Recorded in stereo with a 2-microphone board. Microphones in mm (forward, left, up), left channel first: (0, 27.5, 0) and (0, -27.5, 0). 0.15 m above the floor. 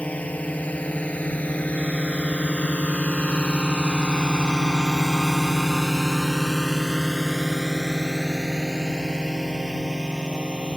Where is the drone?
25° left (ahead or behind); by 10.8 s 15° right (ahead or behind).